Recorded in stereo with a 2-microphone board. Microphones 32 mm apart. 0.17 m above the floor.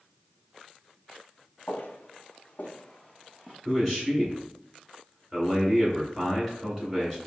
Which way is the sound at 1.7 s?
85° left.